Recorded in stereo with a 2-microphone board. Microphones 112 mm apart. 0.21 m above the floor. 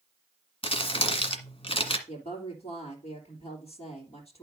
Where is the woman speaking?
65° left (ahead or behind), 3 m.